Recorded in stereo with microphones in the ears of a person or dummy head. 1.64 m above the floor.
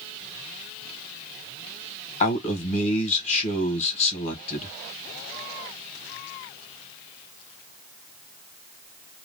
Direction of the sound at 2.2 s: 35° left (ahead or behind).